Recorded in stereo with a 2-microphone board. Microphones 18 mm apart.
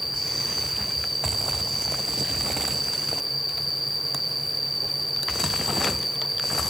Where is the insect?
5° right (ahead or behind), 4.5 m.